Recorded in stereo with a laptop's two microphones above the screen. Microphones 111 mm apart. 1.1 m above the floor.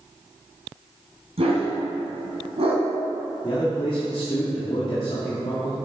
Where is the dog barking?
65° right (ahead or behind), 2 m.